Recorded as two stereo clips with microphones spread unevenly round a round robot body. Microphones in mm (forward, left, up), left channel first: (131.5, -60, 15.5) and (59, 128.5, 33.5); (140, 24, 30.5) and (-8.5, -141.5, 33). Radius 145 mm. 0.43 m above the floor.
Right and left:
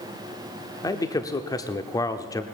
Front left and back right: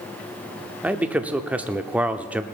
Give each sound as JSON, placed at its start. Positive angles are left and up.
{"t": 0.8, "sound": "a man speaking", "azimuth_deg": -55, "distance_m": 0.8}